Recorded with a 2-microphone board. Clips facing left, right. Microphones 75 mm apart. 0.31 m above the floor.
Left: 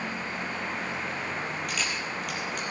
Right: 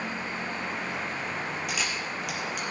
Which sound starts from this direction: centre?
A camera shutter, at 1.7 s.